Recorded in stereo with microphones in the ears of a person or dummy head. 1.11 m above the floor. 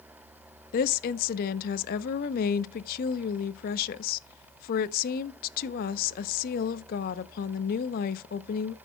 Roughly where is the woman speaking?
Left.